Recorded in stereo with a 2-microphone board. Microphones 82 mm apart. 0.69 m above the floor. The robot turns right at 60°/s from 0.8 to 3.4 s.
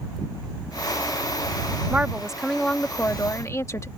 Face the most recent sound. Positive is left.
turn(degrees=60)